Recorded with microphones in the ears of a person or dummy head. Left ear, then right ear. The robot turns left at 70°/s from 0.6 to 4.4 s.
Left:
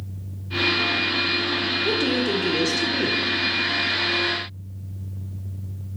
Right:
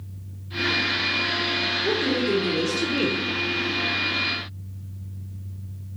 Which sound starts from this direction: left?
A woman speaking, at 1.9 s.